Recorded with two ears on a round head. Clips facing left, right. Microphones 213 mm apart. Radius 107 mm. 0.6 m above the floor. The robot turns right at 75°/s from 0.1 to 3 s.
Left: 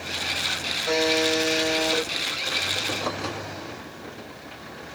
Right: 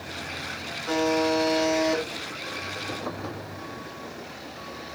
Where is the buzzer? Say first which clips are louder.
Even; 90° left, 3.5 m; by 2.0 s straight behind, 3.5 m.